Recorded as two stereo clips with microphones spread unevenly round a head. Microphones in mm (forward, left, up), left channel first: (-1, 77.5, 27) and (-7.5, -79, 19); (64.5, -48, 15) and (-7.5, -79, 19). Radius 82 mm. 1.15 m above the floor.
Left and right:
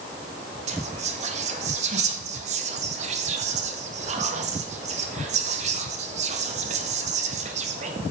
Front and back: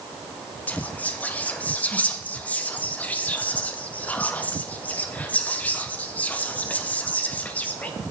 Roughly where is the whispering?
Ahead right.